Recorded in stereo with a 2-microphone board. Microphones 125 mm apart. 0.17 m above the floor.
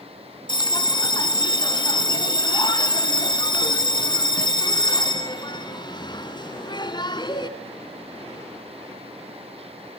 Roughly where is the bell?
Left.